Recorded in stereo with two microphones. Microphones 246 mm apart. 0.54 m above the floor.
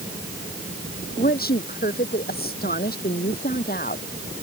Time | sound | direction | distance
1.2 | a woman speaking | 35° left (ahead or behind) | ?